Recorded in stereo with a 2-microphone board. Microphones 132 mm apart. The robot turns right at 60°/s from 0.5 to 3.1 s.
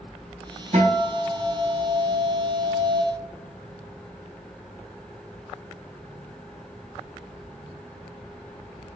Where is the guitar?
70° right, 3.5 m; by 3.0 s 70° left, 3.5 m.